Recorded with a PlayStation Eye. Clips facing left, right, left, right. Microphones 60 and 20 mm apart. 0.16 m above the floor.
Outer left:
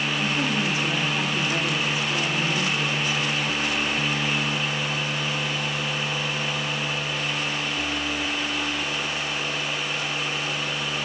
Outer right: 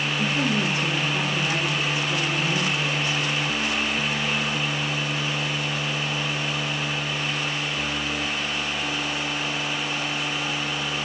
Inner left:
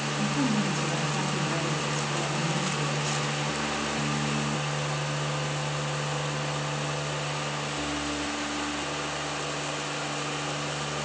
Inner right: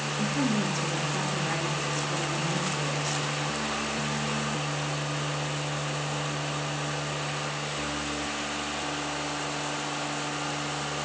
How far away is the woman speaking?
About 2.0 m.